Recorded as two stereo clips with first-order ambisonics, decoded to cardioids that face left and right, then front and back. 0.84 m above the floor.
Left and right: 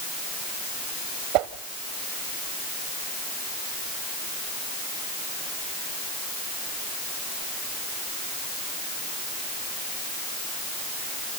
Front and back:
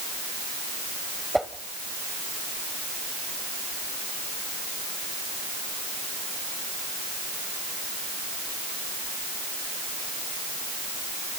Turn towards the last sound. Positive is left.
turn(degrees=-95)